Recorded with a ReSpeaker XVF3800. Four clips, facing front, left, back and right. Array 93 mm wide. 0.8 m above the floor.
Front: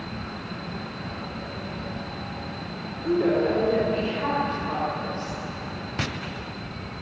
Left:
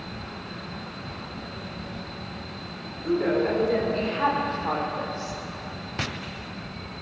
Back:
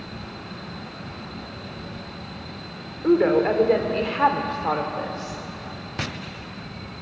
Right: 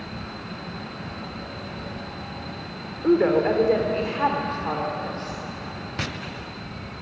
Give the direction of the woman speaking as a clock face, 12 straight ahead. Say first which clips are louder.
Right 5 dB, back 4 dB; 5 o'clock.